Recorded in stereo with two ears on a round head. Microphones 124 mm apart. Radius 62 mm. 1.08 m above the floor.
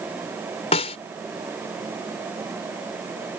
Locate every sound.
0.7 s a snare drum: 45° left (ahead or behind)